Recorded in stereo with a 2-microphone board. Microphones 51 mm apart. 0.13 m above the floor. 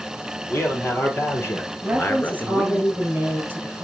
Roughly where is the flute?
I don't hear a flute.